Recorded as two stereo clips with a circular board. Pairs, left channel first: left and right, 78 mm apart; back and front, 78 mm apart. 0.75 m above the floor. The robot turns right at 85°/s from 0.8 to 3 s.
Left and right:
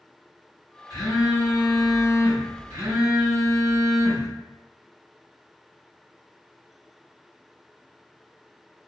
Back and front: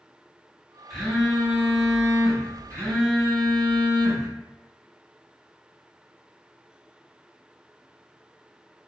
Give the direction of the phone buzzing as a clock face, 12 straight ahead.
9 o'clock.